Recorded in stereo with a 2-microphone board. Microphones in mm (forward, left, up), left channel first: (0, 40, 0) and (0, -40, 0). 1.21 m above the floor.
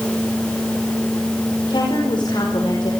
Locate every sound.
1.7 s a woman speaking: 70° left (ahead or behind), 5.5 m